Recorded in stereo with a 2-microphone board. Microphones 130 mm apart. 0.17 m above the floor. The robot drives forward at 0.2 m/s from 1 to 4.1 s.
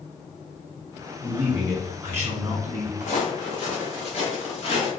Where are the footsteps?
60° left (ahead or behind), 1.8 m; by 4.9 s 45° left (ahead or behind), 3.5 m.